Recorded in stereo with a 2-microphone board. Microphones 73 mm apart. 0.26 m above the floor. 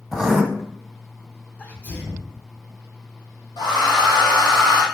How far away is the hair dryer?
About 2 m.